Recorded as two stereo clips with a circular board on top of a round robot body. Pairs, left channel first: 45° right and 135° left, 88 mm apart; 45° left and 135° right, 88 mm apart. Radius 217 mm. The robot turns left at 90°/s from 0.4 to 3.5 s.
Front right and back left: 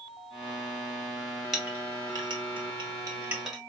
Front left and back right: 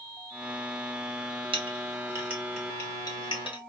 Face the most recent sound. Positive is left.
turn(degrees=45)